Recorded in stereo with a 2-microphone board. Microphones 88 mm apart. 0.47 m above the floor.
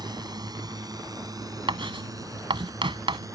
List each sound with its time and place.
0.0 s a drone: 50° right (ahead or behind); by 3.4 s 40° right (ahead or behind)
1.7 s writing: 70° right (ahead or behind)